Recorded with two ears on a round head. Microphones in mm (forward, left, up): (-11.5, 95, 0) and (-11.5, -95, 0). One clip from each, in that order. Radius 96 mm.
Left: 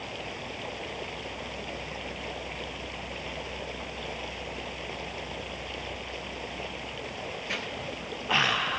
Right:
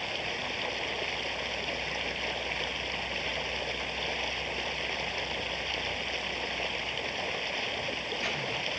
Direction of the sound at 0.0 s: 55° right (ahead or behind).